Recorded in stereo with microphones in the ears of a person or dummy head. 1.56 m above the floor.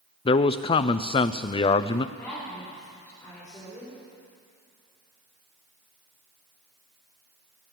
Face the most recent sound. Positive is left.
turn(degrees=15)  # may be behind; listen again after turning